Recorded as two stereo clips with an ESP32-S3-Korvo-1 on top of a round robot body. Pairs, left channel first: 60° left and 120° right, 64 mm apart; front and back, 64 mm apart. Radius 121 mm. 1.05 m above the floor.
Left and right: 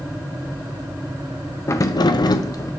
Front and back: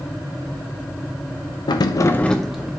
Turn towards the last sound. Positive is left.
turn(degrees=100)